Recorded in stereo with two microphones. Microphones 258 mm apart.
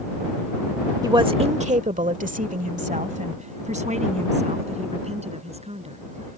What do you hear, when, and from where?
1.0 s a woman speaking: 15° right (ahead or behind); by 6.0 s 25° right (ahead or behind)